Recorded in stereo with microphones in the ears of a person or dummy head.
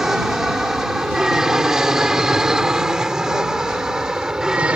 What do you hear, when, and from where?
0.0 s an aircraft: 5° right (ahead or behind)